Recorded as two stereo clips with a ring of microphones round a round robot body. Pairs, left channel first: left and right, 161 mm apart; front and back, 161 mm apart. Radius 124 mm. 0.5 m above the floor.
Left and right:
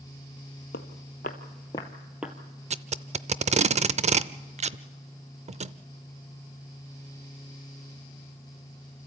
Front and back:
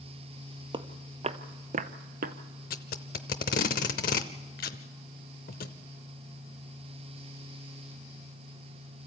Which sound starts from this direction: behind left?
Footsteps, at 0.7 s.